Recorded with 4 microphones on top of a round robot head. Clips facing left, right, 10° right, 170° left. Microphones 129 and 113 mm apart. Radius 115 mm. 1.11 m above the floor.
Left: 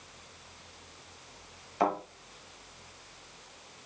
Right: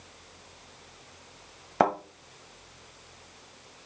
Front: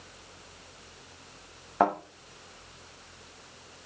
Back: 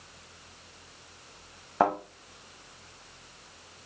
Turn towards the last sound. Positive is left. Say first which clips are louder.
# right 4 dB, even
turn(degrees=-100)